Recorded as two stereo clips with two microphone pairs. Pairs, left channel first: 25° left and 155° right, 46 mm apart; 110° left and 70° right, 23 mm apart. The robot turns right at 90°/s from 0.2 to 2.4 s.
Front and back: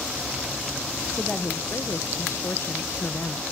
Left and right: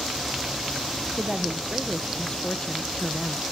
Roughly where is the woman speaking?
Ahead right.